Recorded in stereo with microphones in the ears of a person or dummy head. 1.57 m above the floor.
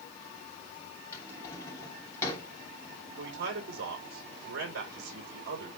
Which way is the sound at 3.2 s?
75° right (ahead or behind).